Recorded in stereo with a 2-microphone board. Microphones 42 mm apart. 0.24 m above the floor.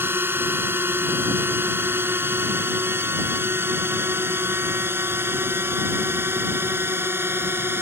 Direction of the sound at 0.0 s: 60° right (ahead or behind).